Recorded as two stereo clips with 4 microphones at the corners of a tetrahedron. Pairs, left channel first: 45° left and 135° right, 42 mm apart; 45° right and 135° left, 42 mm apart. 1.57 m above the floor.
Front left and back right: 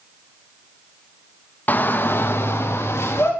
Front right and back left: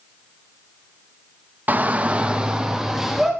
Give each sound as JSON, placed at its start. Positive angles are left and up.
{"t": 1.7, "sound": "a shout", "azimuth_deg": 90, "distance_m": 2.5}